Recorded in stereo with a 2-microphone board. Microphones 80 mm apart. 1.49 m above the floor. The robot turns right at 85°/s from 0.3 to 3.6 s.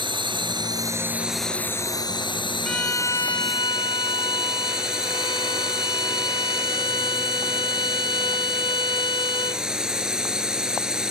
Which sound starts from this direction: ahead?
A violin, at 2.6 s.